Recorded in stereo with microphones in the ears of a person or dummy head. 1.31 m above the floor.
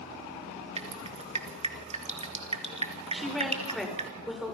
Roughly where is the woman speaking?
Centre.